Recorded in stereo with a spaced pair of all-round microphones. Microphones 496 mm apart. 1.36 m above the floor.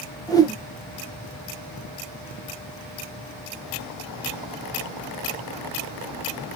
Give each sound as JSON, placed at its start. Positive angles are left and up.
{"t": 0.3, "sound": "a whoosh", "side_deg": 10, "distance_m": 0.6}